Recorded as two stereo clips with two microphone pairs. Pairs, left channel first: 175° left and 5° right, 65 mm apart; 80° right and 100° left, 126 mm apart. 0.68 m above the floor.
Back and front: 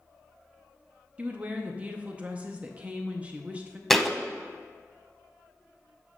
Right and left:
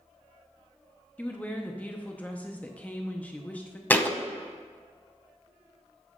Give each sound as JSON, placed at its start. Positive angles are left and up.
{"t": 1.2, "sound": "a woman speaking", "azimuth_deg": -35, "distance_m": 0.6}
{"t": 3.9, "sound": "a thud", "azimuth_deg": -115, "distance_m": 0.5}